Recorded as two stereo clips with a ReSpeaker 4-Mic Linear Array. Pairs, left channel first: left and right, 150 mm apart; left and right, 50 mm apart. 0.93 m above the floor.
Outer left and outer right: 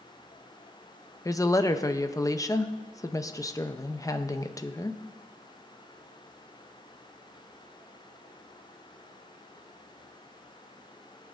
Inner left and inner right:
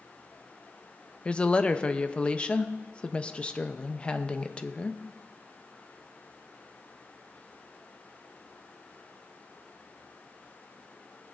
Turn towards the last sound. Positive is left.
turn(degrees=20)  # may be behind; listen again after turning